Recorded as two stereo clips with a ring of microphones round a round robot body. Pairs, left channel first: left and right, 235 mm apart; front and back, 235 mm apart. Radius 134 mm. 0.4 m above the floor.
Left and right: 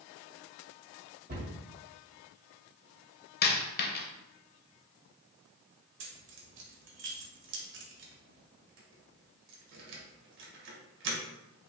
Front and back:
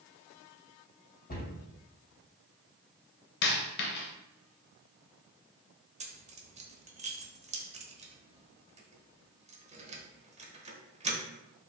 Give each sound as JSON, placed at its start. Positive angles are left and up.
{"t": 1.3, "sound": "a cupboard door", "azimuth_deg": -45, "distance_m": 2.5}
{"t": 3.4, "sound": "a dropped coin", "azimuth_deg": 45, "distance_m": 0.8}
{"t": 6.0, "sound": "keys jangling", "azimuth_deg": -120, "distance_m": 1.0}